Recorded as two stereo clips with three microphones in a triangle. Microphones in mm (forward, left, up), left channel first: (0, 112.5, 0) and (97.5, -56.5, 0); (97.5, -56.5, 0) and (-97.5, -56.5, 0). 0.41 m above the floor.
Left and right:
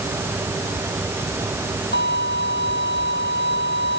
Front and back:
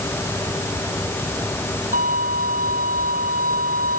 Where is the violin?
140° left.